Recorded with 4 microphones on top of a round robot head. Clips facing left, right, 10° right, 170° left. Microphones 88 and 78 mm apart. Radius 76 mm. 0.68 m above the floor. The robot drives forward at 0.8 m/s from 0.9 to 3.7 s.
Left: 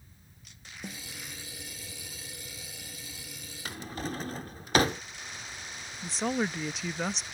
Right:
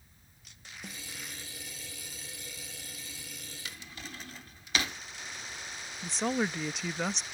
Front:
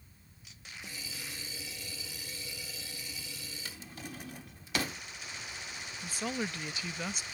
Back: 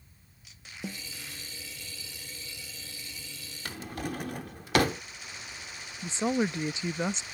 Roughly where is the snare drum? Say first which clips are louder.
Left 4 dB, back 9 dB; behind.